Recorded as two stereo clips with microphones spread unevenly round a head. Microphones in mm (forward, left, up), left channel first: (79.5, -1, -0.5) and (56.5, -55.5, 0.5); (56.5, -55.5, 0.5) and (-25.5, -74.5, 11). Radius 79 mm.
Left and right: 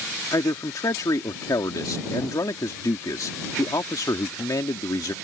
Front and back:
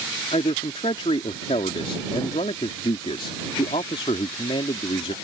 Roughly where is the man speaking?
Ahead left.